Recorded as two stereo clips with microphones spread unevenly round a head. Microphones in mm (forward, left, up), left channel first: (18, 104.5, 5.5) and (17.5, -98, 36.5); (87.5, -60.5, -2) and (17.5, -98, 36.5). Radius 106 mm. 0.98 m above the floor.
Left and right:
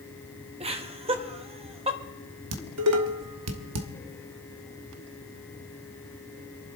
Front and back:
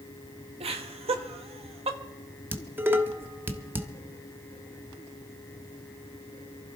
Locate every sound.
0.6 s laughter: 155° right, 1.4 m
2.5 s dishes clattering: 85° right, 1.3 m